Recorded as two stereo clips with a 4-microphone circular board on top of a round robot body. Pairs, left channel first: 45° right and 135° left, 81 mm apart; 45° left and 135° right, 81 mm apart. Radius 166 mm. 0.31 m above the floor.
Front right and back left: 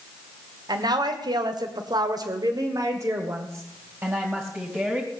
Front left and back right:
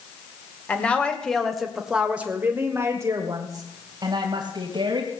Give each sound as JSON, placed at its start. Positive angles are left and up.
{"t": 0.7, "sound": "a woman speaking", "azimuth_deg": 115, "distance_m": 2.5}